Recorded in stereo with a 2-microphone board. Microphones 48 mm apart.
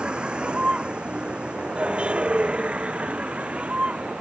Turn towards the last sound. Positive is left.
turn(degrees=-25)  # may be behind; listen again after turning